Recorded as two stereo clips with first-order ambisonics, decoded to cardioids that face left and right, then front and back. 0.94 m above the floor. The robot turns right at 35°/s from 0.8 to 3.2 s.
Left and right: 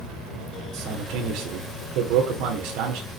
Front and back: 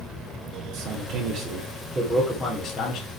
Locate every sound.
0.7 s a man speaking: 150° right, 3 m; by 3.1 s 70° right, 3 m